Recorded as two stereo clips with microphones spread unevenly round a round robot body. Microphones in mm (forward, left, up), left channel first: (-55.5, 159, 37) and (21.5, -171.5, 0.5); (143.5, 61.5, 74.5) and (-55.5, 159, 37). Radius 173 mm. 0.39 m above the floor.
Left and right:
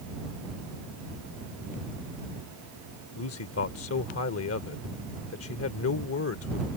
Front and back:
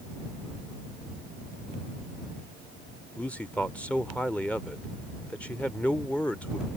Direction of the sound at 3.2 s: 65° left.